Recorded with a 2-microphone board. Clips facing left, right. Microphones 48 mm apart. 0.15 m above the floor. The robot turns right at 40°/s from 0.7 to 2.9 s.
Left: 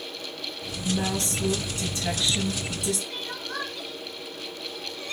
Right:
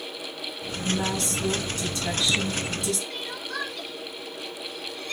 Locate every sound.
0.8 s a woman speaking: 30° left (ahead or behind), 1.1 m; by 3.0 s 5° left (ahead or behind), 1.1 m
3.1 s crying: 20° left (ahead or behind), 1.3 m